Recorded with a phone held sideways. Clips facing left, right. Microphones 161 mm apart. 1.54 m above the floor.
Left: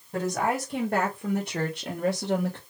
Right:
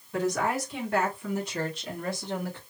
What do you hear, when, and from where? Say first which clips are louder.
0.1 s a woman speaking: even; 40° left (ahead or behind), 2 m; by 2.6 s 70° left (ahead or behind), 1.0 m